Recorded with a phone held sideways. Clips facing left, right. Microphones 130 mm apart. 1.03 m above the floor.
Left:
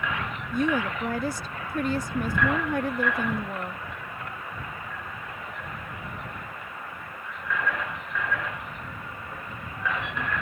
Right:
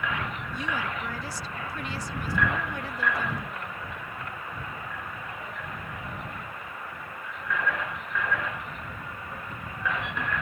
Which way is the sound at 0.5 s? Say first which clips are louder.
Left 9 dB; 50° left (ahead or behind).